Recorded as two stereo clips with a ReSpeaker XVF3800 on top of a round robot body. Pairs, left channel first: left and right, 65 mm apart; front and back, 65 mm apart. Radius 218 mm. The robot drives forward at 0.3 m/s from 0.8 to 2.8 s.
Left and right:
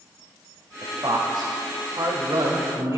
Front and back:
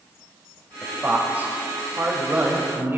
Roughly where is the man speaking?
Behind right.